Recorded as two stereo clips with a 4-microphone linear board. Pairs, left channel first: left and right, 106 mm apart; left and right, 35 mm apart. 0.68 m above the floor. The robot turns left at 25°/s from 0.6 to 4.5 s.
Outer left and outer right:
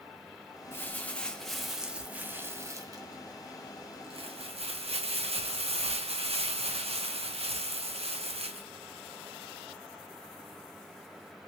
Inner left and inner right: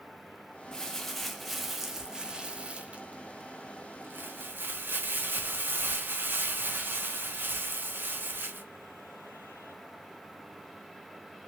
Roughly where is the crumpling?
Ahead.